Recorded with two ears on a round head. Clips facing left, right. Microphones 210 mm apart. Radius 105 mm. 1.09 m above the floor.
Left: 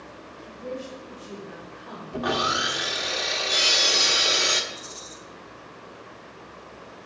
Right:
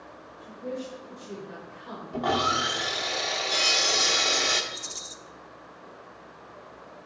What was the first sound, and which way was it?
A woman speaking, 30° right (ahead or behind).